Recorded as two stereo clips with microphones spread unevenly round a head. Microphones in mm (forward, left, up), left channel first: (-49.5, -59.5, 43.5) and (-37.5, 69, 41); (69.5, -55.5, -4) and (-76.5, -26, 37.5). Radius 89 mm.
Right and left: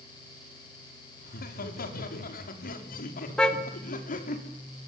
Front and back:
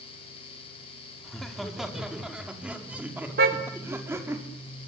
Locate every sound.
1.2 s laughter: 100° right, 5.5 m; by 4.4 s 120° right, 5.5 m
3.4 s a car horn: straight behind, 3 m